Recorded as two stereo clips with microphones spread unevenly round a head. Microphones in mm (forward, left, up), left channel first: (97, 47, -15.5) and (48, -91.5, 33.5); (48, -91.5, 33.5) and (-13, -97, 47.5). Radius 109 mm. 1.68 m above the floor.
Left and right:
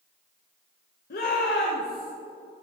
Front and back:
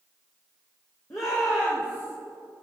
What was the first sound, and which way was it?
A shout, 65° left.